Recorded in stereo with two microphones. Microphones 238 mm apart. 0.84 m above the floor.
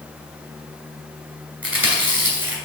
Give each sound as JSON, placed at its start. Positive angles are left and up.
{"t": 1.6, "sound": "chewing", "side_deg": -65, "distance_m": 2.0}